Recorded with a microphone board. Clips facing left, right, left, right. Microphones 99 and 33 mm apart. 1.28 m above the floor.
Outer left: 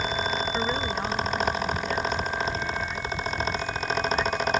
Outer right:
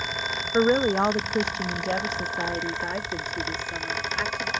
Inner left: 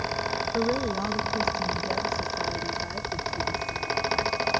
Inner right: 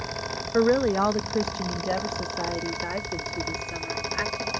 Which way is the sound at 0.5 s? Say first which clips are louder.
Outer right 7 dB, inner right 8 dB; 50° right (ahead or behind).